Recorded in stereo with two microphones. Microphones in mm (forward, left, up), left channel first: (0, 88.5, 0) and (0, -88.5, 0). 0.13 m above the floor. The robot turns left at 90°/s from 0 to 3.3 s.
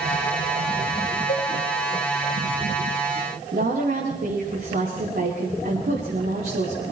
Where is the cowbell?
65° left (ahead or behind), 4.5 m; by 1.5 s 45° left (ahead or behind), 4.5 m.